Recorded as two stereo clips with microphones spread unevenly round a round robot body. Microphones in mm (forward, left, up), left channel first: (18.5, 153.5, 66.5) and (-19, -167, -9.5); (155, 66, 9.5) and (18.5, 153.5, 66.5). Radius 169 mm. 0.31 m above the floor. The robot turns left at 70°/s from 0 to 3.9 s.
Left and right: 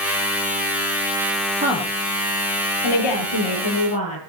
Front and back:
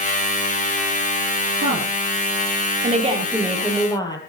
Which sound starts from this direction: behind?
A woman speaking, at 1.6 s.